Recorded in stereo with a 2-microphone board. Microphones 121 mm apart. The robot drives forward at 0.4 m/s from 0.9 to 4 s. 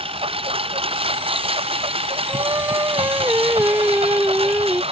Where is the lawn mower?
50° right (ahead or behind).